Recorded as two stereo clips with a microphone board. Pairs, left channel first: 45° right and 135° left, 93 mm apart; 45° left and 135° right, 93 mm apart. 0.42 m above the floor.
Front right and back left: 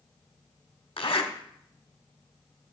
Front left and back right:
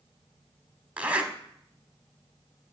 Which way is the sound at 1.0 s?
60° right.